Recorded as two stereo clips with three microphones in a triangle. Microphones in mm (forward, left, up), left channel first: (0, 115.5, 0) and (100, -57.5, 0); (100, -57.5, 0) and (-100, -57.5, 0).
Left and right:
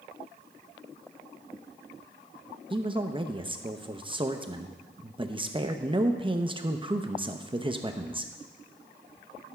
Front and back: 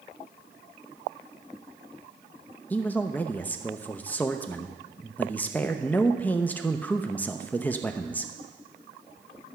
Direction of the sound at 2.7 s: 70° right.